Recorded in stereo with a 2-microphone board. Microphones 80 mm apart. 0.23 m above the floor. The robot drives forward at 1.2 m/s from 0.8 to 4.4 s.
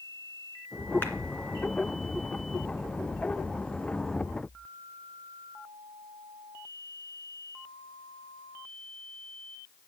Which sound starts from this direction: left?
A clap, at 1.0 s.